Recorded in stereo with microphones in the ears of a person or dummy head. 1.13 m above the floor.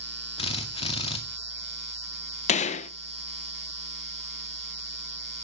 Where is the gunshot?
40° left (ahead or behind), 0.7 m.